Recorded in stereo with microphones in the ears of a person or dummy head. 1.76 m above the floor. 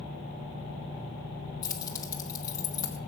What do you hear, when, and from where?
1.6 s keys jangling: 25° left (ahead or behind), 1.1 m